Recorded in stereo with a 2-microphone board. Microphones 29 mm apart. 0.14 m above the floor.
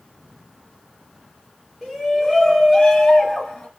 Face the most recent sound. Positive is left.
turn(degrees=25)  # may be behind; listen again after turning